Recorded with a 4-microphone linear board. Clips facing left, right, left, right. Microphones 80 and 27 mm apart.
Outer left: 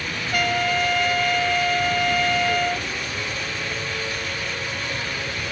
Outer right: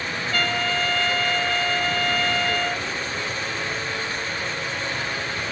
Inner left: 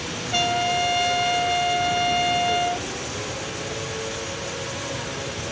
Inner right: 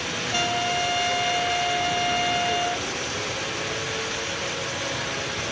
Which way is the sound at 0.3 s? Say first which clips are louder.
Outer left 3 dB, inner left 3 dB; 15° left (ahead or behind).